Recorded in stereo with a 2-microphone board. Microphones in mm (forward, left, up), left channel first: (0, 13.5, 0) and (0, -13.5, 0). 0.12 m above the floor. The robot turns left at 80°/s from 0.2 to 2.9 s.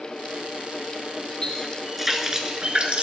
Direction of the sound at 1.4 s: 40° left.